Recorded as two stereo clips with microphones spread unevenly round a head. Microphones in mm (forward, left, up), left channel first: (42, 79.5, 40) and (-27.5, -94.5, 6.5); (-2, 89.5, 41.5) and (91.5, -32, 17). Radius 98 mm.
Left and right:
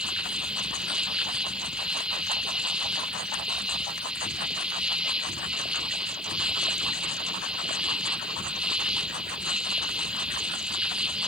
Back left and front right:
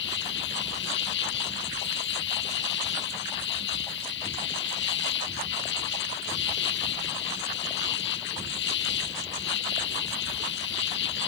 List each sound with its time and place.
0.0 s an insect: 160° left